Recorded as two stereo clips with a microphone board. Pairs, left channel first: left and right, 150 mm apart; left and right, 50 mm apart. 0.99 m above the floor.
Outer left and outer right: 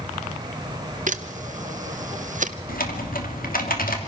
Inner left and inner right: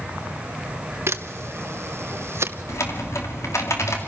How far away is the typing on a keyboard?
About 2.5 m.